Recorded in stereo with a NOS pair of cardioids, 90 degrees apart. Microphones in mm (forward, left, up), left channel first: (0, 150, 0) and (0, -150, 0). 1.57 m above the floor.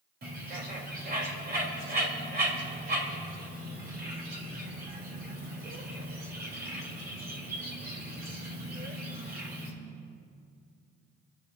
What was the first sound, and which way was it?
A bird, 30° right.